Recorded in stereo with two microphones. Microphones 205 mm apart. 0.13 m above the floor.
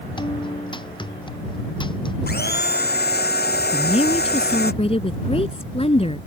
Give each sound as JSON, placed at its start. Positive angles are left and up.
{"t": 0.2, "sound": "a guitar", "side_deg": 20}
{"t": 2.3, "sound": "a blender", "side_deg": 50}
{"t": 3.7, "sound": "a woman speaking", "side_deg": 30}